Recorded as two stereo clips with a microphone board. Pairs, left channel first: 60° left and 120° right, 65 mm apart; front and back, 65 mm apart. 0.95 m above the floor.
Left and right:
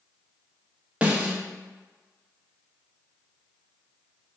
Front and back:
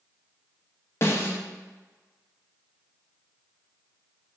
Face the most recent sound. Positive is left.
turn(degrees=-45)